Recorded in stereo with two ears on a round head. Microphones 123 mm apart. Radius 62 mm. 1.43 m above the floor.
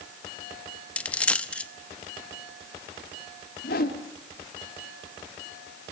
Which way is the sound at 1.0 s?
10° left (ahead or behind).